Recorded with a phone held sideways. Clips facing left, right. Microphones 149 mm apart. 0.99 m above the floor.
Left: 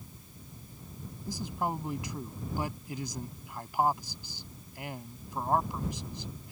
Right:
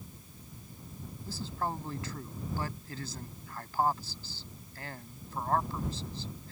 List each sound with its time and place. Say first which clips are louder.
1.3 s a man speaking: left 2 dB; 15° left (ahead or behind)